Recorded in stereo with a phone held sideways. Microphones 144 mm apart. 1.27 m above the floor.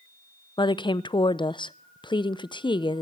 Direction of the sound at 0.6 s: 35° left (ahead or behind).